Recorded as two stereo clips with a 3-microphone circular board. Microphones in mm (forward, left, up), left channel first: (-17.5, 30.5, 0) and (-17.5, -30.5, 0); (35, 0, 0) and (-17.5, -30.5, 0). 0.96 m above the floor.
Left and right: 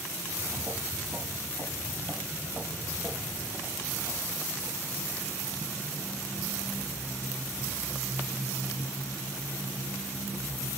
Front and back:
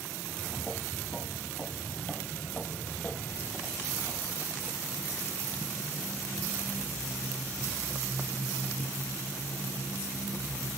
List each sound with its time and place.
0.2 s footsteps: 55° right, 7 m; by 4.6 s 25° right, 5.5 m